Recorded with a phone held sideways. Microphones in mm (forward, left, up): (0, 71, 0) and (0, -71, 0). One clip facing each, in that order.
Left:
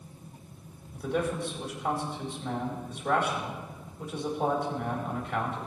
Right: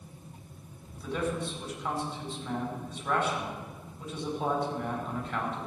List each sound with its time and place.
0.9 s a man speaking: 60° left (ahead or behind), 4.5 m